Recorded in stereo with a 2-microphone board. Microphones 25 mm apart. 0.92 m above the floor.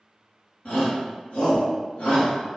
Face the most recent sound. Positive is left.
turn(degrees=70)  # may be behind; listen again after turning